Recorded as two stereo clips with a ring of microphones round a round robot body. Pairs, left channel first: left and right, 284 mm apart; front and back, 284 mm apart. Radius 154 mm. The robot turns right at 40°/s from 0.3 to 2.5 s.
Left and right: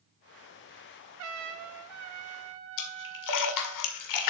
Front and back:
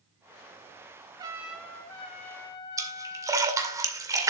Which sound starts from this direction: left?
A splash, at 2.8 s.